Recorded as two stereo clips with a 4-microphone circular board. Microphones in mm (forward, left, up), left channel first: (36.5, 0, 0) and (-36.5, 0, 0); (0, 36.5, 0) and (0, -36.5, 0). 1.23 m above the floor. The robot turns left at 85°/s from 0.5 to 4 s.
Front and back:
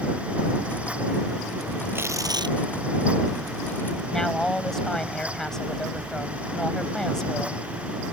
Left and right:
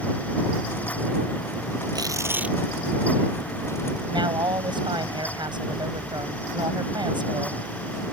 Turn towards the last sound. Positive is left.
turn(degrees=-85)